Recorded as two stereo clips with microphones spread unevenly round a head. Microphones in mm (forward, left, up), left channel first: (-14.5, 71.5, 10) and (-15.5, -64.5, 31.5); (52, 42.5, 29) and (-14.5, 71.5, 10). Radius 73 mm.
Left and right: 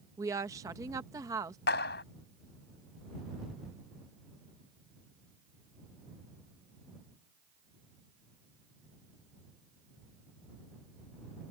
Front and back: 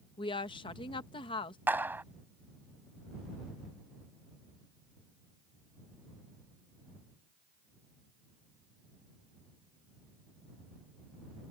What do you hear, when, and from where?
0.2 s a woman speaking: 20° right
1.7 s a clap: 90° left